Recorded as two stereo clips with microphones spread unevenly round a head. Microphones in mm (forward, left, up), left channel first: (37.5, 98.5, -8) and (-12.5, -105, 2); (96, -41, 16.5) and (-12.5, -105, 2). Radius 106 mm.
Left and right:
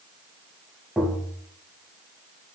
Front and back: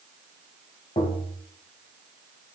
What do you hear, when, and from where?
1.0 s tapping: 15° right, 1.8 m